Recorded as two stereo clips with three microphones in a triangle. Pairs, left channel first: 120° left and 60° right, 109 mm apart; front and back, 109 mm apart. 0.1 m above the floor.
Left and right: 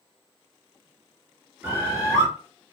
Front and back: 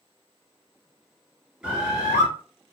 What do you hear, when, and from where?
1.6 s a bird: 105° right, 1.7 m